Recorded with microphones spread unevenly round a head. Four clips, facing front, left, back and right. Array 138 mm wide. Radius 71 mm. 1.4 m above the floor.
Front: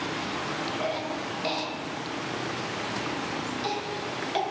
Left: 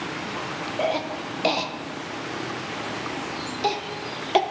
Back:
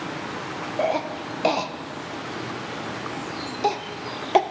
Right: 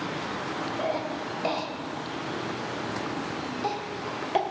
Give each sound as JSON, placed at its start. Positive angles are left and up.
{"t": 0.8, "sound": "a cough", "azimuth_deg": 155, "distance_m": 0.6}